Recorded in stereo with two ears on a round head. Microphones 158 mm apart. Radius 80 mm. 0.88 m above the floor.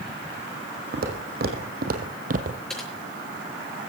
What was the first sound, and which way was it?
Footsteps, 60° right (ahead or behind).